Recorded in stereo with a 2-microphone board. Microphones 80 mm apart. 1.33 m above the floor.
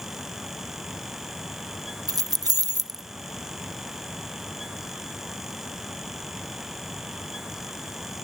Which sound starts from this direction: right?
Keys jangling, at 2.1 s.